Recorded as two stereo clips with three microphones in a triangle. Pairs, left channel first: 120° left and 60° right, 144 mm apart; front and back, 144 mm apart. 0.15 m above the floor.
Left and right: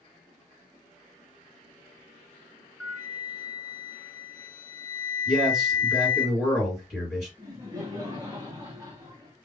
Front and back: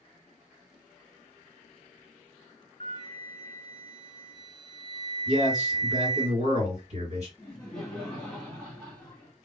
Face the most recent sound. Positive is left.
turn(degrees=-80)